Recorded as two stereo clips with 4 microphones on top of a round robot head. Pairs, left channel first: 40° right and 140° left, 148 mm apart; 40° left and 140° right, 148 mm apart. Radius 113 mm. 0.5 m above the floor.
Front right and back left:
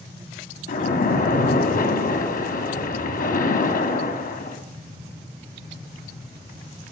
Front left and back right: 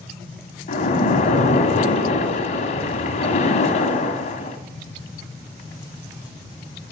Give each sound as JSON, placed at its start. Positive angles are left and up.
{"t": 0.7, "sound": "a splash", "azimuth_deg": -5, "distance_m": 1.4}